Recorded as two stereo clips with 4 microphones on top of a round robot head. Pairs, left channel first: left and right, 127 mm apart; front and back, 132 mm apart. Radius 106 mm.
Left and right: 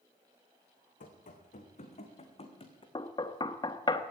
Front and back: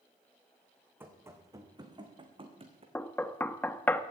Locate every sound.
1.0 s running footsteps: 105° left, 2.5 m; by 2.9 s 135° left, 2.5 m
3.0 s knocking: 65° left, 0.8 m